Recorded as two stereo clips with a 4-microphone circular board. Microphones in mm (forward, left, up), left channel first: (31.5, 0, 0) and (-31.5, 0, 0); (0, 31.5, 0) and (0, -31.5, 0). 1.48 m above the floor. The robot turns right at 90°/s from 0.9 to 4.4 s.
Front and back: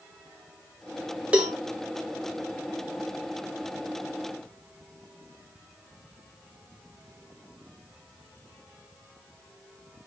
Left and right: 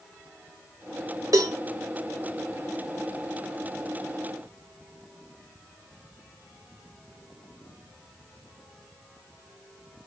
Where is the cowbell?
110° right, 0.8 m; by 1.6 s 90° right, 0.8 m.